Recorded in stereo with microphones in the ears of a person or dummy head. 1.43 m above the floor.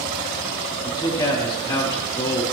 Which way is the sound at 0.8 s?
20° left (ahead or behind).